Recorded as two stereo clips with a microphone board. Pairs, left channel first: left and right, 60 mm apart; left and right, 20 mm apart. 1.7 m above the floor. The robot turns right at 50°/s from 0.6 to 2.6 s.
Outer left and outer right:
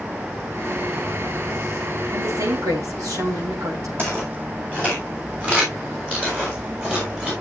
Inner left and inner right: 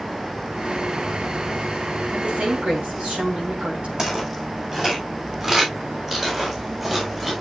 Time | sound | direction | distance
2.1 | a woman speaking | 60° right (ahead or behind) | 6 m
4.0 | footsteps | 40° right (ahead or behind) | 7.5 m